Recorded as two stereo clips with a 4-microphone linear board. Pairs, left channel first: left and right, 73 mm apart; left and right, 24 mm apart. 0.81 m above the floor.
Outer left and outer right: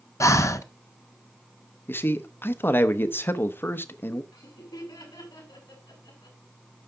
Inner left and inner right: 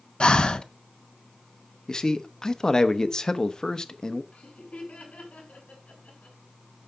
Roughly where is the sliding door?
No sliding door in this recording.